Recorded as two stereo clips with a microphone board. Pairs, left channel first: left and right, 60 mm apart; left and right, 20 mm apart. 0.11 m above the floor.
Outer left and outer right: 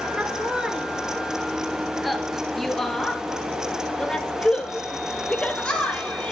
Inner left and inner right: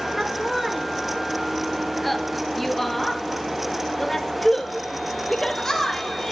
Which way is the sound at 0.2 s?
20° right (ahead or behind).